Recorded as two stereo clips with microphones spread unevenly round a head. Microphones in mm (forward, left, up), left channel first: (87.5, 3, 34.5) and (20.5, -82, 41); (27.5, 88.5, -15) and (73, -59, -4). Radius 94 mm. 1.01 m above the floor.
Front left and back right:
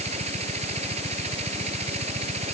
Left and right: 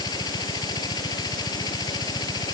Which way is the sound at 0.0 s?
Straight behind.